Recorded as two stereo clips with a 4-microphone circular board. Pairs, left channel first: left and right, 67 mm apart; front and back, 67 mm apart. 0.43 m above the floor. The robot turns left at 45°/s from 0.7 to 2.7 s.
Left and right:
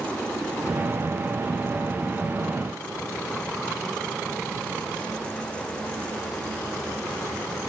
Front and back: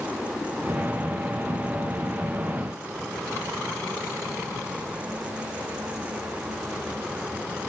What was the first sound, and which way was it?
Only background noise.